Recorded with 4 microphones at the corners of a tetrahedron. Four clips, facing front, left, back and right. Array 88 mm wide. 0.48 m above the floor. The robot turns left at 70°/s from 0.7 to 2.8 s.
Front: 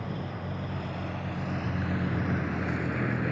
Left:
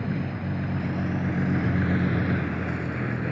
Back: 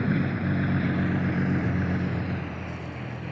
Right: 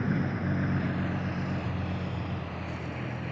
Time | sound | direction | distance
0.0 | a vehicle | 170° right | ?